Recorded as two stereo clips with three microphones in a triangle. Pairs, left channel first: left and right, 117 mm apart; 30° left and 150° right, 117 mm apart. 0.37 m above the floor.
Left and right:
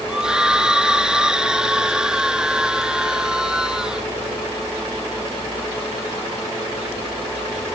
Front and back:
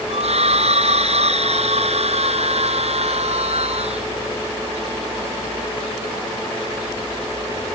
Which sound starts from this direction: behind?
A scream, at 0.1 s.